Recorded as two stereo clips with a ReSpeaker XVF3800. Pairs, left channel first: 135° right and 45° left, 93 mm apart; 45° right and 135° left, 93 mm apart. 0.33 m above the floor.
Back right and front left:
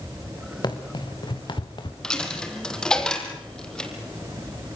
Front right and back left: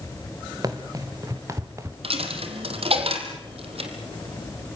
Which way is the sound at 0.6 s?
175° right.